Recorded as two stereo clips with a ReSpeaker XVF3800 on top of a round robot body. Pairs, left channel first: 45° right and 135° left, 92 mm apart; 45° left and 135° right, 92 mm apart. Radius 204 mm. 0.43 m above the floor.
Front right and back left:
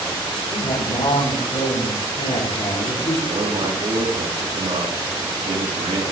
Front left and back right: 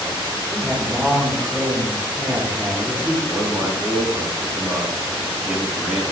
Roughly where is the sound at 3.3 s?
Behind left.